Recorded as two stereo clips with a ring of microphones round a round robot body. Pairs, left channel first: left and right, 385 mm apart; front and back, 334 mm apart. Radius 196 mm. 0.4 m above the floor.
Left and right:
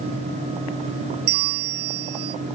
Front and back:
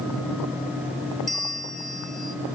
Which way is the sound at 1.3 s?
90° right.